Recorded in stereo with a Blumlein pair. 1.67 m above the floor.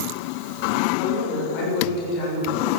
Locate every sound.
1.0 s a woman speaking: 45° left, 6 m; by 2.7 s 40° left, 8 m